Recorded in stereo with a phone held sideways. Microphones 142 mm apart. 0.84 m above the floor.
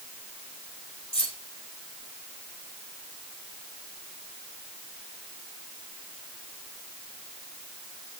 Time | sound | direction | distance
1.1 | keys jangling | 40° left (ahead or behind) | 6 m